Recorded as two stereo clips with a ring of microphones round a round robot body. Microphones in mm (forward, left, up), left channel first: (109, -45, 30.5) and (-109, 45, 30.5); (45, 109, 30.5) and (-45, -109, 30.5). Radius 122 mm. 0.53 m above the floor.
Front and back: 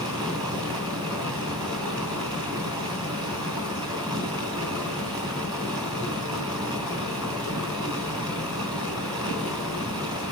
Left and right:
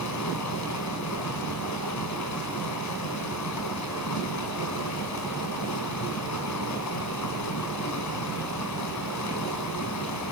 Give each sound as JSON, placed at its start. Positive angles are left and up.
{"t": 0.0, "sound": "running water", "azimuth_deg": 85, "distance_m": 4.0}